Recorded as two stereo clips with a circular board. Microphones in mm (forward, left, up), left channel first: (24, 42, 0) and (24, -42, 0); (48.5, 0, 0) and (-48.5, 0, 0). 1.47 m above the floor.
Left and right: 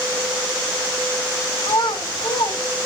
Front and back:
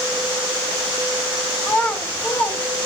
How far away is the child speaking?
About 2.5 m.